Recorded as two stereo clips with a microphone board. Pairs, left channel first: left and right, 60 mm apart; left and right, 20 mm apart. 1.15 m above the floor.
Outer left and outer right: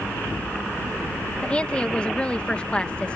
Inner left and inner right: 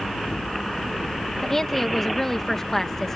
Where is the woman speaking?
20° left (ahead or behind).